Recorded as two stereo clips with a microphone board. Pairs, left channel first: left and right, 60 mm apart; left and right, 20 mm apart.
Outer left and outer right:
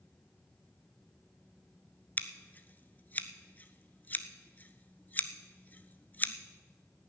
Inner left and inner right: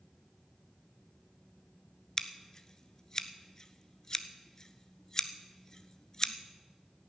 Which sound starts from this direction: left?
Scissors, at 2.2 s.